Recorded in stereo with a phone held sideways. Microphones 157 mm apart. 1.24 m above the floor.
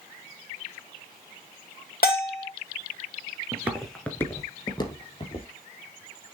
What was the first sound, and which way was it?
A bell, 75° left (ahead or behind).